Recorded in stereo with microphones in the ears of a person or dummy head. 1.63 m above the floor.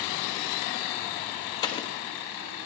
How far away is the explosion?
About 1.2 m.